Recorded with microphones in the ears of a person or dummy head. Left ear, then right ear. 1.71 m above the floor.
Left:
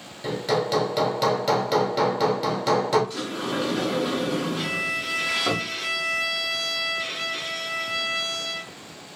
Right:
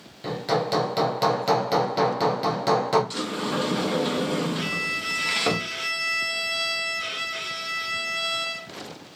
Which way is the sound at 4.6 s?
30° right (ahead or behind).